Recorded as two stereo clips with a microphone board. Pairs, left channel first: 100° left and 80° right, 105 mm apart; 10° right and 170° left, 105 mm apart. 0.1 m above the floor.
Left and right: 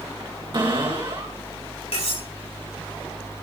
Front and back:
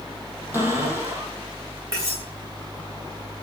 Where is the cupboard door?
125° right, 4 m.